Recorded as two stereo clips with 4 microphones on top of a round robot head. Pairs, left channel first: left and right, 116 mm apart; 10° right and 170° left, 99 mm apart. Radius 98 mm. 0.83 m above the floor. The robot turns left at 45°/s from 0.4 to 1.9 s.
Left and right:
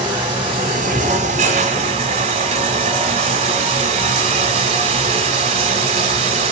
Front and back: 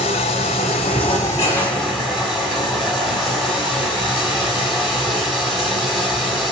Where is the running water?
35° right, 0.8 m; by 6.5 s 100° right, 0.8 m.